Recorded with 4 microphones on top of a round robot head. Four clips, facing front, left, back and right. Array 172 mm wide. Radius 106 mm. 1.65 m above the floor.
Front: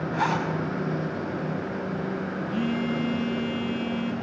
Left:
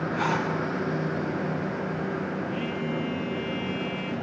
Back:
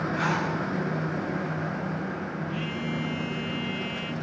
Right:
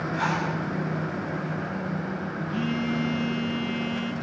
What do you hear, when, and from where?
0.1 s a zipper: straight ahead, 8.5 m
2.5 s a phone buzzing: 40° right, 1.9 m